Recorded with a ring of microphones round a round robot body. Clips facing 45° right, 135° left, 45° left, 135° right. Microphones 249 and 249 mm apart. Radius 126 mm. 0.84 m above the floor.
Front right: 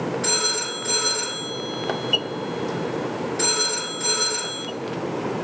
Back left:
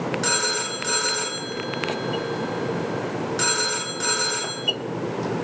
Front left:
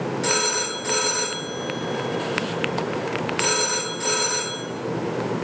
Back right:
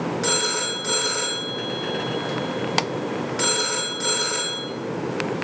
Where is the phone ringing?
150° left, 1.3 m.